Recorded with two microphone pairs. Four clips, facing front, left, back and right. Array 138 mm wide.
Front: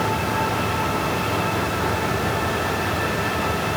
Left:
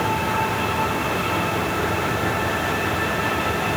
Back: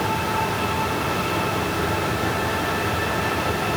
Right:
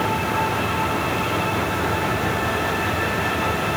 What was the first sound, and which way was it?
Only background noise.